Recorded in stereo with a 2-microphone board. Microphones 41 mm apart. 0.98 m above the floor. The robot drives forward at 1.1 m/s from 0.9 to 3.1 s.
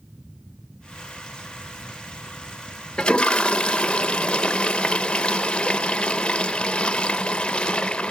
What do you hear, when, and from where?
3.0 s a toilet flushing: 20° left (ahead or behind), 0.8 m; by 8.1 s 25° left (ahead or behind), 0.7 m